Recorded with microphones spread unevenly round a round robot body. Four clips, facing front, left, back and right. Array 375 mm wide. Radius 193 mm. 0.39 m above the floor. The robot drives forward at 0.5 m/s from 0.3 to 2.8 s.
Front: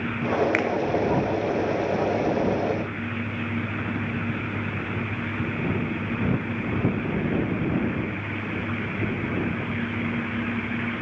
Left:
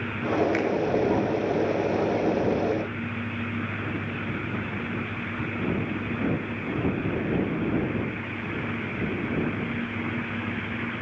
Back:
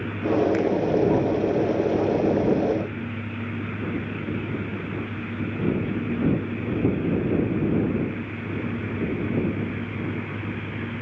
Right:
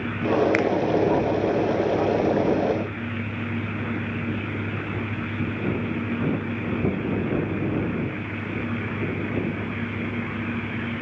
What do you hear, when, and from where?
0.5 s a finger snap: 30° right, 1.2 m; by 0.7 s 35° right, 1.2 m